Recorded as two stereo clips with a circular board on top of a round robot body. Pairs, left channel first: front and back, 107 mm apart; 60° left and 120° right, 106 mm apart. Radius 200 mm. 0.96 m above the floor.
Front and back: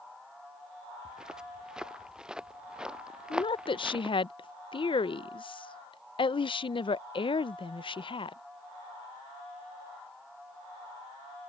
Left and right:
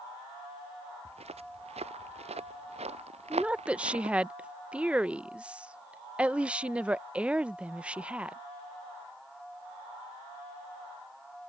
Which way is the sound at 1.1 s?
95° right.